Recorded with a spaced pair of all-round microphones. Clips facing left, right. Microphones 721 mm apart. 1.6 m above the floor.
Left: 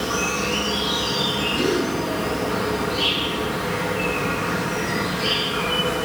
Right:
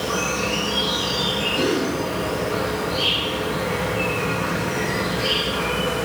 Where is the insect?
35° right (ahead or behind), 2 m.